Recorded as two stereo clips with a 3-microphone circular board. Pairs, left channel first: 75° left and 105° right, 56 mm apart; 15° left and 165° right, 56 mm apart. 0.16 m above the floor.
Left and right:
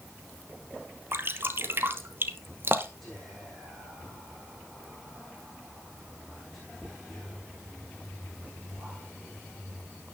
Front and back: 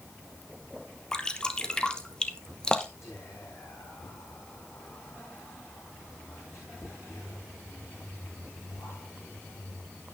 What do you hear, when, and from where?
1.1 s dripping: 60° right, 1.1 m
3.0 s whispering: 10° right, 7.5 m